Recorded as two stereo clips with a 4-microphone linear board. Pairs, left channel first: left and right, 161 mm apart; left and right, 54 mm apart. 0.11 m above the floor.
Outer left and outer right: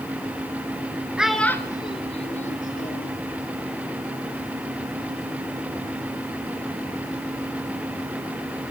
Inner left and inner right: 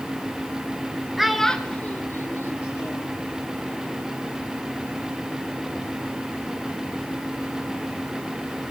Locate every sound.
1.2 s a child speaking: 5° right (ahead or behind), 0.9 m; by 3.1 s 60° left (ahead or behind), 1.7 m